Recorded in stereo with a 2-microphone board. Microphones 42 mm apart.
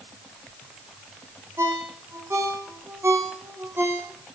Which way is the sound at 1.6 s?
75° right (ahead or behind).